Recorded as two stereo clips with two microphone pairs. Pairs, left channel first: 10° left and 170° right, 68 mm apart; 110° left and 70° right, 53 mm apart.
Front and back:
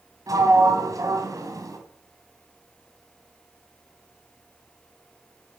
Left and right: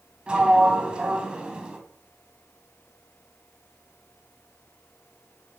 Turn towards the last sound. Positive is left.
turn(degrees=-140)